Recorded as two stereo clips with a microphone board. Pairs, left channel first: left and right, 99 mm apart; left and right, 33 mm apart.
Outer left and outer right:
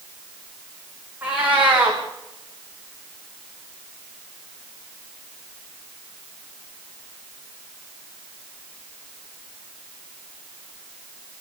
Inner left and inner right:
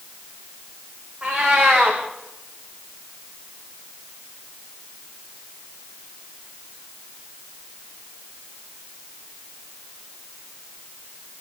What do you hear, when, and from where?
1.2 s a cat meowing: 20° right (ahead or behind), 8 m